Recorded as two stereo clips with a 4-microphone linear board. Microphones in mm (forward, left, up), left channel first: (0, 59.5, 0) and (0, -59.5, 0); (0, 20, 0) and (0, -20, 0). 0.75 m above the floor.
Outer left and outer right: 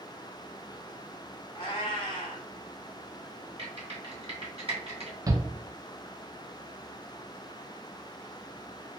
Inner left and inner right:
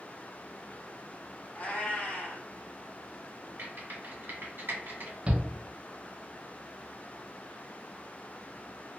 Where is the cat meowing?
45° left (ahead or behind), 0.9 m.